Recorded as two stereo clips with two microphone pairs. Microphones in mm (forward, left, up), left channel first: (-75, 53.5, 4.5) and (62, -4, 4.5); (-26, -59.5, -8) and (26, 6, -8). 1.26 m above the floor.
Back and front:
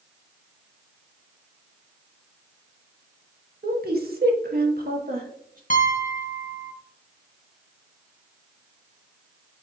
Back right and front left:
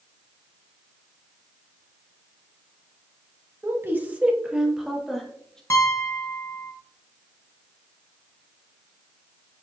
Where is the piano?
Straight behind, 1.0 m.